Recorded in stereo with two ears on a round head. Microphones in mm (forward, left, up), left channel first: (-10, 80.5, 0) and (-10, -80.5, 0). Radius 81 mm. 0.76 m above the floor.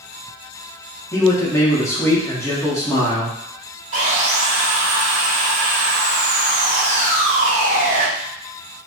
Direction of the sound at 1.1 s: 20° left (ahead or behind).